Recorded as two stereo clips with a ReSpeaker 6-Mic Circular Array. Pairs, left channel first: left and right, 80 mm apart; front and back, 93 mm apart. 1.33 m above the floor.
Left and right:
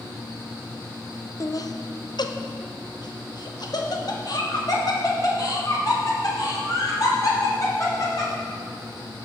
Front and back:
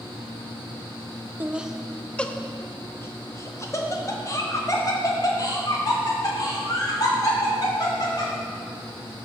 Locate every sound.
1.4 s laughter: 115° left, 0.6 m; by 8.3 s 45° left, 4 m